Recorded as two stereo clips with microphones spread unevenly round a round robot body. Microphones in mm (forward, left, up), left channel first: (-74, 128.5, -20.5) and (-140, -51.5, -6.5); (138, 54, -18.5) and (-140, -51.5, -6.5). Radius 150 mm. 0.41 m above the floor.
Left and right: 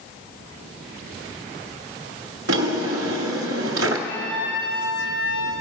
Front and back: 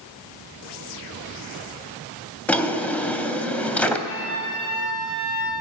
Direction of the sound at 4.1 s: 70° left.